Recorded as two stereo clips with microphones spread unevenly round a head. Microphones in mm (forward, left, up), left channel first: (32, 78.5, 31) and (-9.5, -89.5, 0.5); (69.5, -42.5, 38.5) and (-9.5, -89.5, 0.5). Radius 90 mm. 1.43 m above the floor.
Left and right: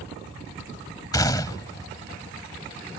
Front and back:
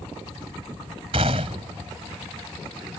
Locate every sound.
1.1 s a gunshot: 145° left